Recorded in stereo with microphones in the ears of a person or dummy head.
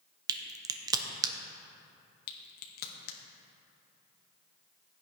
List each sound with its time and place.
0.3 s a crack: 20° right (ahead or behind), 0.7 m
2.3 s a crack: 55° left (ahead or behind), 1.3 m